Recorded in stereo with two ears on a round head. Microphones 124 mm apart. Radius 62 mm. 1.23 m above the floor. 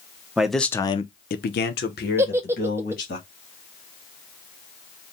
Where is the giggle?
15° right (ahead or behind), 0.5 m.